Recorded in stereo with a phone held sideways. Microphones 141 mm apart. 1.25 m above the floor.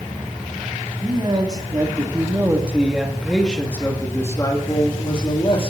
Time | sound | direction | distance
1.0 | a man speaking | 35° right (ahead or behind) | 4 m